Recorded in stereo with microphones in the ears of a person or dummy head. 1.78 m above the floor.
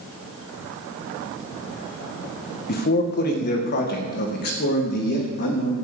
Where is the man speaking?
50° left (ahead or behind), 1.8 m; by 5.7 s 60° left (ahead or behind), 3.5 m.